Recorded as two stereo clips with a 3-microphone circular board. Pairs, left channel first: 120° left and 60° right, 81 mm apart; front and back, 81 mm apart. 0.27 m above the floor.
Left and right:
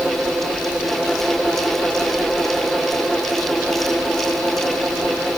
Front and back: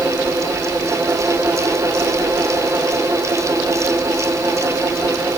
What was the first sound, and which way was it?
Only background noise.